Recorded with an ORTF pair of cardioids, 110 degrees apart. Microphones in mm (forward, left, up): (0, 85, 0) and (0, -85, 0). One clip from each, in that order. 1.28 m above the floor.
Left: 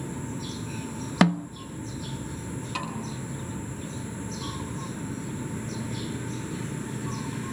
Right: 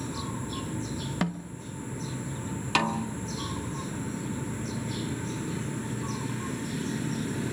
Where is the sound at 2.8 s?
60° right, 1.9 m.